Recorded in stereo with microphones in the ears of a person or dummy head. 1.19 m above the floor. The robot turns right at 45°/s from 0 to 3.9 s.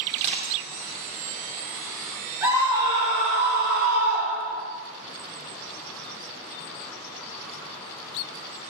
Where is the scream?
165° right, 2.5 m; by 4.7 s 100° right, 2.5 m.